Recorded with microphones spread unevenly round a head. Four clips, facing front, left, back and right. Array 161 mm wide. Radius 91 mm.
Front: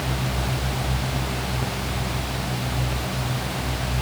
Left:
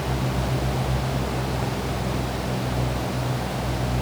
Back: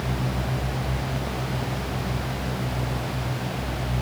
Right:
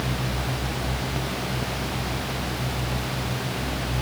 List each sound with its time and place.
Only background noise.